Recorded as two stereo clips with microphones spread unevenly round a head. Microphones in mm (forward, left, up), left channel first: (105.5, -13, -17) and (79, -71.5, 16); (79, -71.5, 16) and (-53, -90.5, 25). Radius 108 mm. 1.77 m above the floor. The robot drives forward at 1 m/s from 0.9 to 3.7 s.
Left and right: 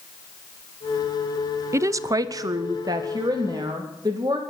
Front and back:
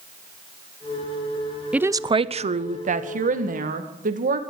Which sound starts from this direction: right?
A woman speaking, at 1.7 s.